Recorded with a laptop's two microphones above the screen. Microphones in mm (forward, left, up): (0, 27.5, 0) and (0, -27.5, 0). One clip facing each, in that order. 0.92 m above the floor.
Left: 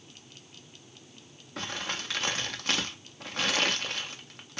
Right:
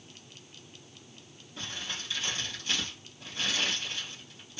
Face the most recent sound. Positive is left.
turn(degrees=65)  # may be behind; listen again after turning